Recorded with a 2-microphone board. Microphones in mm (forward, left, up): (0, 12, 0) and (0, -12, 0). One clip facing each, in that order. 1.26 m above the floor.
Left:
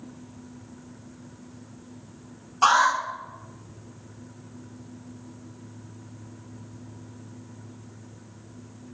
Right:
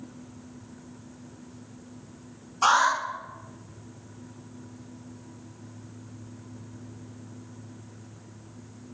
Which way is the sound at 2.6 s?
20° left (ahead or behind).